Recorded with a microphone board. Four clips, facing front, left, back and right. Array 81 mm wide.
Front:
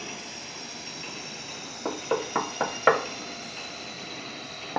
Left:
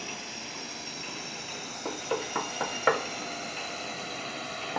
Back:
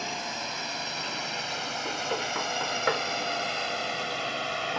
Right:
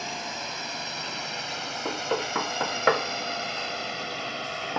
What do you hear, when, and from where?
0.0 s a drone: 135° right; by 4.8 s 160° right
1.9 s knocking: 20° right